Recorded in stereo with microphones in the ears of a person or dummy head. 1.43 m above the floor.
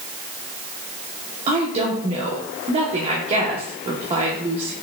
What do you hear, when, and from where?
1.5 s a woman speaking: 30° right (ahead or behind), 0.9 m